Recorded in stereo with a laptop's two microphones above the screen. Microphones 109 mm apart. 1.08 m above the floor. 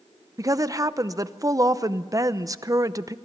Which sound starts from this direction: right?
A woman speaking, at 0.4 s.